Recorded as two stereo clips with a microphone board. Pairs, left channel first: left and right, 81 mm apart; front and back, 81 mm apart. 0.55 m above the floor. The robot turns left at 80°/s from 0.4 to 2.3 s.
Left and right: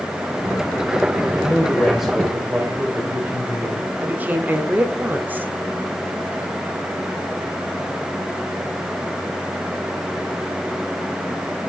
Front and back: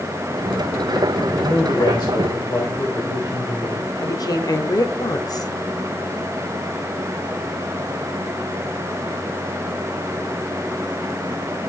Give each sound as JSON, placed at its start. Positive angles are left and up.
{"t": 1.4, "sound": "a man speaking", "azimuth_deg": 50, "distance_m": 2.5}
{"t": 4.0, "sound": "a woman speaking", "azimuth_deg": -25, "distance_m": 1.1}